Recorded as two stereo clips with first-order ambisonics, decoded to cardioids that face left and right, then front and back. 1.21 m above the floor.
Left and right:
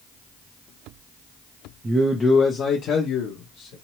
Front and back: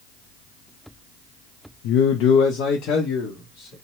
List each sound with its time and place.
1.8 s a man speaking: 15° right, 0.5 m; by 3.7 s 55° left, 1.1 m